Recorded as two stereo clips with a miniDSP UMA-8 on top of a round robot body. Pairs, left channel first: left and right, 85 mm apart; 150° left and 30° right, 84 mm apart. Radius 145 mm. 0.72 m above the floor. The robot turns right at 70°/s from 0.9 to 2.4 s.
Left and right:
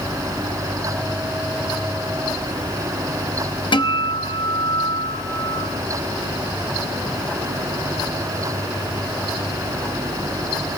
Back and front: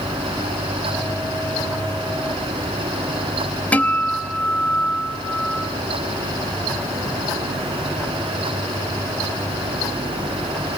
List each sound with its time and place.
3.7 s a guitar: 75° left, 1.3 m